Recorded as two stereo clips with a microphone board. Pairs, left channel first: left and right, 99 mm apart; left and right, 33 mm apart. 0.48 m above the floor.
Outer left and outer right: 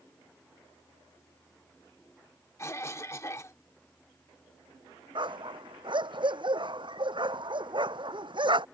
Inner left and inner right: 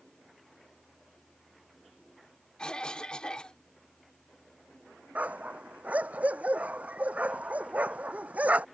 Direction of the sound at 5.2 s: 55° right (ahead or behind).